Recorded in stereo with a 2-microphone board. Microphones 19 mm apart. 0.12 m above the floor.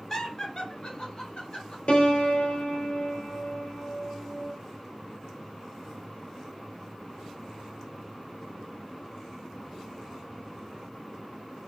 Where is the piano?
65° left (ahead or behind), 0.9 m.